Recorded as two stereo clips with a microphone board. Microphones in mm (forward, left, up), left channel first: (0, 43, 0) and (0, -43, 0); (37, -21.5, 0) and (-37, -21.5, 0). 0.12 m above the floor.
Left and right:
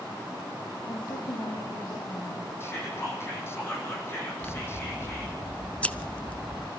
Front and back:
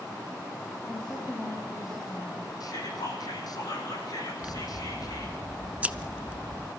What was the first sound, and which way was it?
A woman speaking, 80° left.